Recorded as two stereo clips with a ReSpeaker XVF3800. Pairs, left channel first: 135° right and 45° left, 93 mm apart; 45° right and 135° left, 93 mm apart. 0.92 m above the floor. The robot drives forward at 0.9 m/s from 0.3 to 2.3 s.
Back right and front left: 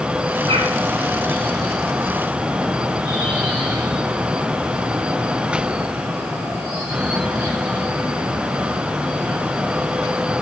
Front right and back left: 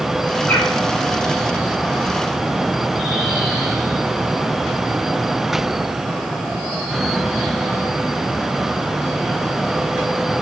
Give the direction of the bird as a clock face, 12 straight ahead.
11 o'clock.